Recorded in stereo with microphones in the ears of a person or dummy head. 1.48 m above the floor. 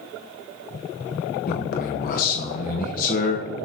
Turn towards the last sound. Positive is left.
turn(degrees=55)  # may be behind; listen again after turning